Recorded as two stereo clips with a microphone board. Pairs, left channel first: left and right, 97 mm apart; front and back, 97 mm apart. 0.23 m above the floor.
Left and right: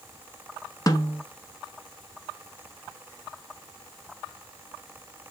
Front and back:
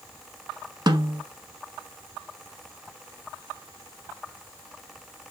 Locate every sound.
0.9 s a snare drum: 140° left, 0.9 m